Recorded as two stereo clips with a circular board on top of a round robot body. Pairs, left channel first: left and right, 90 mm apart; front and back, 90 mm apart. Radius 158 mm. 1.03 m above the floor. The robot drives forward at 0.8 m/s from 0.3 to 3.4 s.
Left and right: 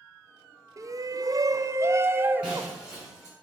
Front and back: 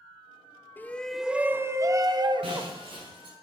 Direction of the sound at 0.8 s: 60° right.